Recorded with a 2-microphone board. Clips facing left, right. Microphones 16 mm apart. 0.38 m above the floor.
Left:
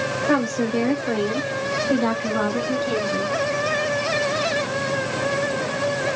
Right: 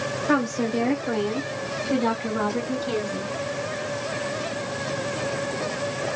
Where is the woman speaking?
15° left (ahead or behind), 1.3 m; by 3.3 s 25° left (ahead or behind), 1.9 m.